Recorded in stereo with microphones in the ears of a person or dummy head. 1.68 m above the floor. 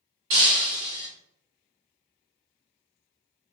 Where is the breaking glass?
25° right (ahead or behind), 1.3 m.